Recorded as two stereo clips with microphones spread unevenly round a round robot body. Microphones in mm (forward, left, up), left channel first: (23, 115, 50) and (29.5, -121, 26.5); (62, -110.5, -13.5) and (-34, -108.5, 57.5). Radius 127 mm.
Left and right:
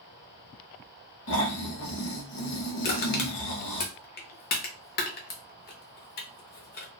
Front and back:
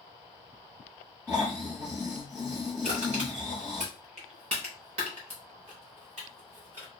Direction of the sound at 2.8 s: 145° left.